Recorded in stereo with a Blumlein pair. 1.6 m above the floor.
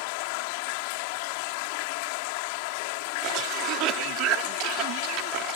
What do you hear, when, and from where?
0.0 s running water: 45° left
3.2 s a cough: 40° right